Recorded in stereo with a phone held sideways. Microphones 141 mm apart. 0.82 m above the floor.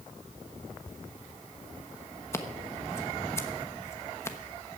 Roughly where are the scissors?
Centre.